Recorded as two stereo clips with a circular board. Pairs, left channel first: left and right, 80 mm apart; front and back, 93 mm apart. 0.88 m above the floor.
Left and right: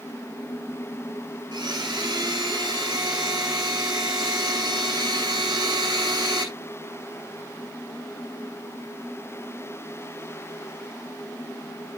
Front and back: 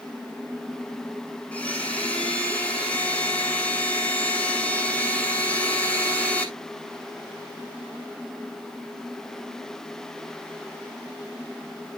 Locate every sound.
1.5 s a blender: 75° right, 3.5 m